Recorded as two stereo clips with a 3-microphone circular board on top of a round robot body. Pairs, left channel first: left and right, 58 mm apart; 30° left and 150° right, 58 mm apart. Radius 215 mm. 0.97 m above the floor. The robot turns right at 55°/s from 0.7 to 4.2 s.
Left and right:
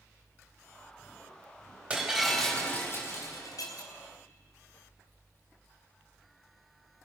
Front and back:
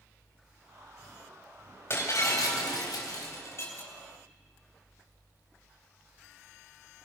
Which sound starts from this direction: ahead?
Breaking glass, at 1.9 s.